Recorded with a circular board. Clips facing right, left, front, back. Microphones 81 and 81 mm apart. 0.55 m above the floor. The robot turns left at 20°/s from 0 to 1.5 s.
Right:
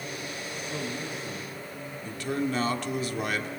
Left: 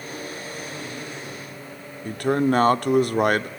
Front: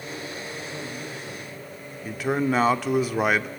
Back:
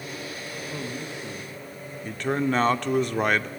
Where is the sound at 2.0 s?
85° left, 1.0 m.